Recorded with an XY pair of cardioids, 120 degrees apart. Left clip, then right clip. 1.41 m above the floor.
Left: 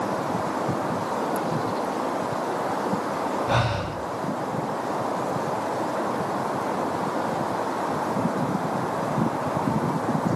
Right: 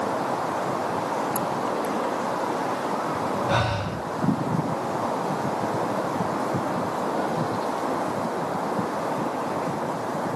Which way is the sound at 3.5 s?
5° left.